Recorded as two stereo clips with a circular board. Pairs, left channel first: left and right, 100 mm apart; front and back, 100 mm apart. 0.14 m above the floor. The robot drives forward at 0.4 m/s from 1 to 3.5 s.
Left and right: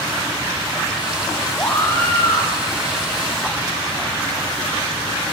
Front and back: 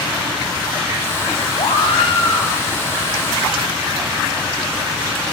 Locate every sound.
1.6 s a scream: 15° left, 3.5 m; by 2.5 s 20° left, 3.5 m